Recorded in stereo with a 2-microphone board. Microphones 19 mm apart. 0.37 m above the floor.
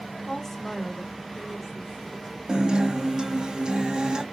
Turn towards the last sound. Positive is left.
turn(degrees=-40)  # may be behind; listen again after turning